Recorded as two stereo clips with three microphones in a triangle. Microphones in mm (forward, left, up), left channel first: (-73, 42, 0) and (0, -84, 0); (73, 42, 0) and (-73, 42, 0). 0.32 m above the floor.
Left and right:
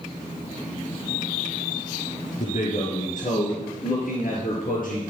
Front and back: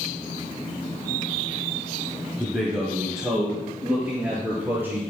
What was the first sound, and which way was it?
A man speaking, 105° left.